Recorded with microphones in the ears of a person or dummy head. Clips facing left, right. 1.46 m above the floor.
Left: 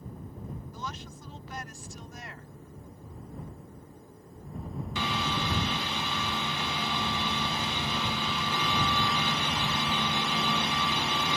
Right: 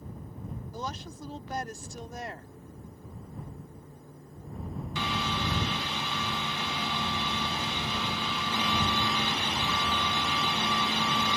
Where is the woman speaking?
35° right (ahead or behind).